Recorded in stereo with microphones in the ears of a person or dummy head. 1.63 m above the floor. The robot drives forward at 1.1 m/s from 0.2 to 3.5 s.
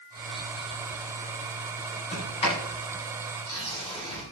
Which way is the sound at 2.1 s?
35° left (ahead or behind).